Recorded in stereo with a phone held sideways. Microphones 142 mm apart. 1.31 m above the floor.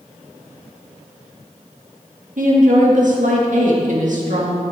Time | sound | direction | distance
2.4 | a woman speaking | 60° right (ahead or behind) | 2 m